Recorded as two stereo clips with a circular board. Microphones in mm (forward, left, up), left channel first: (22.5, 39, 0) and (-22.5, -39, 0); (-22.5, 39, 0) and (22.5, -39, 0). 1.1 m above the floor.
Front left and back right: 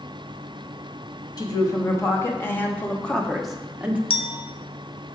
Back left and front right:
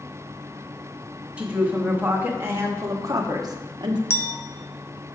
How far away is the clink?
About 0.7 m.